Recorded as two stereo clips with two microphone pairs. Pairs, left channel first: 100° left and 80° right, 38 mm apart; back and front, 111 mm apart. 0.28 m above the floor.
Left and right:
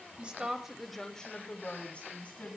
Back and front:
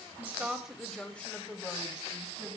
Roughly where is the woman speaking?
Ahead right.